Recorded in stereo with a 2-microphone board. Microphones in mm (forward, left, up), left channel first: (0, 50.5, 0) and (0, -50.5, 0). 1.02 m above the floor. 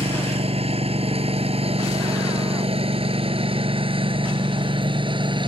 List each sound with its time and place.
0.0 s a lawn mower: 85° right; by 5.5 s 55° right (ahead or behind)